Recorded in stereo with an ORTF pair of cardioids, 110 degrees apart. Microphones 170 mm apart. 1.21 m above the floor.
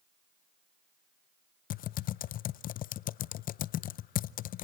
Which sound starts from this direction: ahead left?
Typing on a keyboard, at 1.7 s.